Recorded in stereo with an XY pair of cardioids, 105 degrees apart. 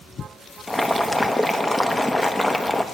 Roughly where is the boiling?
Ahead.